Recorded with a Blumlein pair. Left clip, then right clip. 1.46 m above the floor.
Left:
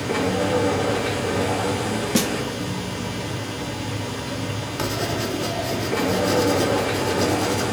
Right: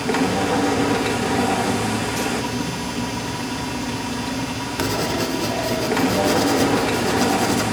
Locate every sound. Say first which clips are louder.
0.0 s a machine running: right 2 dB; 60° right, 1.2 m
2.1 s a snare drum: left 1 dB; 30° left, 0.6 m
4.8 s writing: right 3 dB; 15° right, 0.7 m